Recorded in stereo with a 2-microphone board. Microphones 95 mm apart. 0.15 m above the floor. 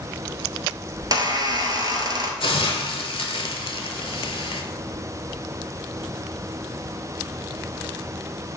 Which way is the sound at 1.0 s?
45° right (ahead or behind).